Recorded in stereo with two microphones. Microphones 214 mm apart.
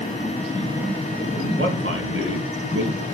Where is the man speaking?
70° right (ahead or behind), 3 m.